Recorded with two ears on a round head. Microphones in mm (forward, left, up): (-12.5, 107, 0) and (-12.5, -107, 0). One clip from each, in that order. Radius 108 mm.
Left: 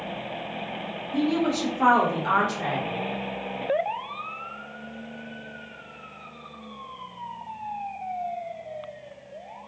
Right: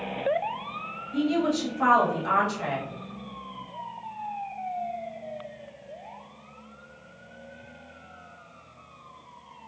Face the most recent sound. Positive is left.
turn(degrees=0)  # may be behind; listen again after turning